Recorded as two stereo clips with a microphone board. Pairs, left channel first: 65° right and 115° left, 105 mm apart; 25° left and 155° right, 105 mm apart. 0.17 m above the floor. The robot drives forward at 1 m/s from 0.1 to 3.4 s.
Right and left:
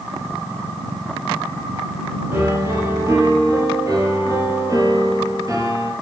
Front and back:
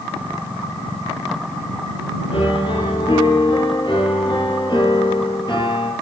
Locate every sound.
2.3 s a piano: 45° left, 5 m; by 5.9 s 55° left, 4.5 m